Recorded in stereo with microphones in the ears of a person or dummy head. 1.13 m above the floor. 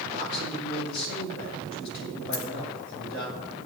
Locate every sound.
0.1 s a man speaking: 55° left (ahead or behind), 6.5 m
2.3 s a dropped coin: 65° left (ahead or behind), 1.8 m